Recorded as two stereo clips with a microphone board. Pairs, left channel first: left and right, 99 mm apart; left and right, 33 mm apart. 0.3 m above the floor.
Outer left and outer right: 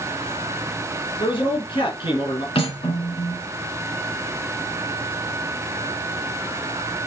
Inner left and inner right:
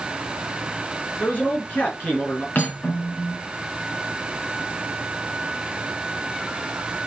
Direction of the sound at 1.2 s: 60° left (ahead or behind).